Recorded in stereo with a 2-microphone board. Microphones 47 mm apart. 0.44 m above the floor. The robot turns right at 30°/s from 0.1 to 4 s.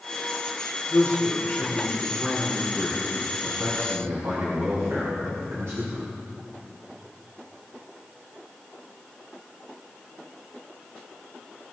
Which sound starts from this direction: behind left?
A man speaking, at 0.9 s.